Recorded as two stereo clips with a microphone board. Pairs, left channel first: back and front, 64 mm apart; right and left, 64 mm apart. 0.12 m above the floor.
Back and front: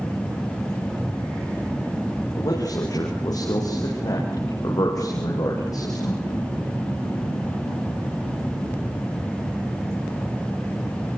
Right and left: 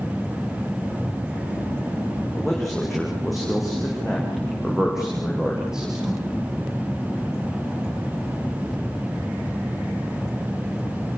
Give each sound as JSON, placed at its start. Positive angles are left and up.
{"t": 2.4, "sound": "a man speaking", "azimuth_deg": 180, "distance_m": 8.5}